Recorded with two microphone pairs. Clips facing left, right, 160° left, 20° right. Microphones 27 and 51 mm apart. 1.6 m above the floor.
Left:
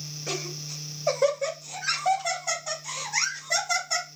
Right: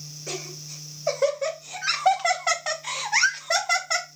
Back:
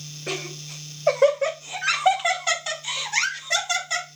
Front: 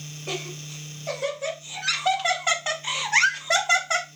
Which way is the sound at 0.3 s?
165° left.